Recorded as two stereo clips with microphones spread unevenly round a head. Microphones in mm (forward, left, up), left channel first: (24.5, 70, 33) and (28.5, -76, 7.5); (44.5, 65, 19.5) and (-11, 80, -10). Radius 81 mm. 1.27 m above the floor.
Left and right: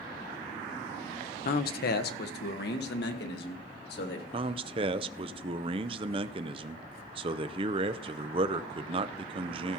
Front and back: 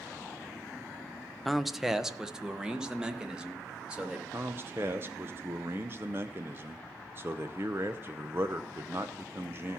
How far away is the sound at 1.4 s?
About 0.7 m.